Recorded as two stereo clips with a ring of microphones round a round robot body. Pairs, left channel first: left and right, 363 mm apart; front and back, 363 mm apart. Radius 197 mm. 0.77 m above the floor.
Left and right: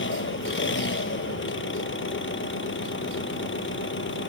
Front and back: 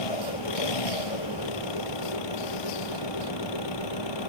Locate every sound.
0.0 s an engine running: 30° left